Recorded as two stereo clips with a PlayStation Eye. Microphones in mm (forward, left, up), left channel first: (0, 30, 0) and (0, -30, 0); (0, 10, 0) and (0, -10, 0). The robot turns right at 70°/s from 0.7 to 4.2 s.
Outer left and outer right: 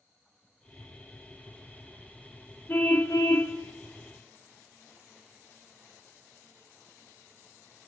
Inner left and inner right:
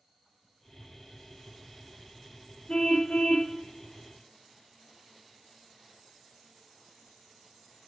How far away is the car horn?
About 4.5 m.